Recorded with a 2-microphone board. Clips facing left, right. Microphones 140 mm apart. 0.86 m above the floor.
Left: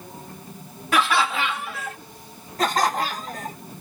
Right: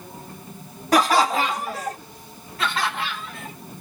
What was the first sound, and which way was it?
Laughter, 35° right (ahead or behind).